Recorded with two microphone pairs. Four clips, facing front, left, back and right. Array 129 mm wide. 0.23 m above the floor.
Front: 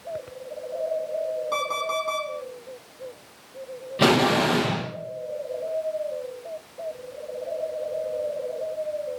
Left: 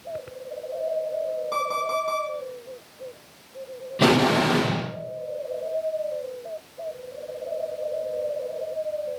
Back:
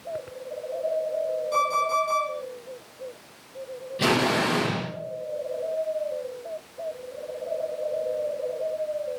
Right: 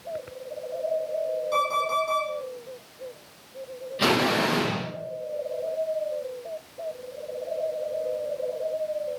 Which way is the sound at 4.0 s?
30° left.